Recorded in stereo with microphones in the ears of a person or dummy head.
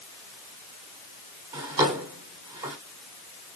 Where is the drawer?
15° right (ahead or behind), 1.3 m.